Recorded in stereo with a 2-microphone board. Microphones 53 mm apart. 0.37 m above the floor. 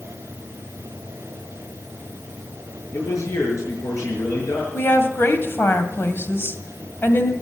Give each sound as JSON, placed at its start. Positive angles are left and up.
{"t": 2.9, "sound": "a man speaking", "side_deg": 75, "distance_m": 5.5}
{"t": 4.7, "sound": "a woman speaking", "side_deg": 45, "distance_m": 2.0}